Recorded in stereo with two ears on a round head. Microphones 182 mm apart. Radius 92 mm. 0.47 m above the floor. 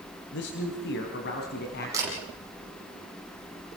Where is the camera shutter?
15° right (ahead or behind), 7.5 m.